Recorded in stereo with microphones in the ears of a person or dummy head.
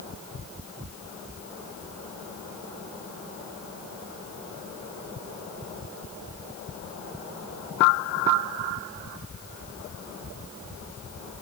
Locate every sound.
Only background noise.